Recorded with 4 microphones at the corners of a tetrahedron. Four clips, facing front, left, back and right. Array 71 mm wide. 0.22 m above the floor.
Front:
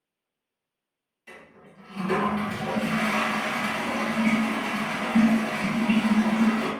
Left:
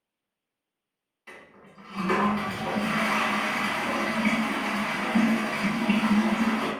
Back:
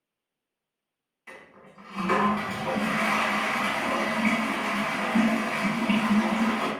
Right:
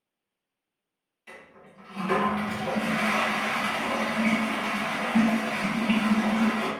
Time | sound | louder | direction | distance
1.3 | a toilet flushing | even, back 1 dB | 155° left | 1.0 m